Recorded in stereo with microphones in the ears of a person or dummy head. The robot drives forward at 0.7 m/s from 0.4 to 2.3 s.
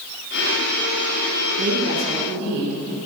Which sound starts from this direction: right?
A woman speaking, at 1.6 s.